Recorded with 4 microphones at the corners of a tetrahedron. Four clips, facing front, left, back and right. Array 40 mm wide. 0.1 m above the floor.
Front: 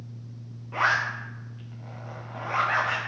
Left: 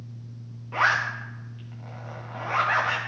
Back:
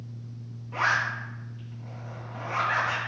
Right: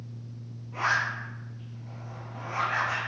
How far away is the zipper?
About 3.5 m.